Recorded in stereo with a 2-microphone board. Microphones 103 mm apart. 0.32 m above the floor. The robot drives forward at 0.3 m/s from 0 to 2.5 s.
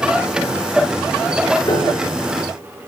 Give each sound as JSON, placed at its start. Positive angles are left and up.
{"t": 1.7, "sound": "a piano", "side_deg": 40, "distance_m": 4.5}